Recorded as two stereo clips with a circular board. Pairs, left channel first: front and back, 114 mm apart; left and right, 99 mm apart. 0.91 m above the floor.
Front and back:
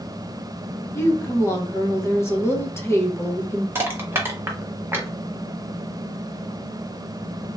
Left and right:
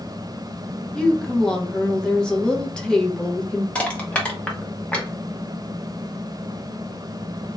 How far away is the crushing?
About 0.8 m.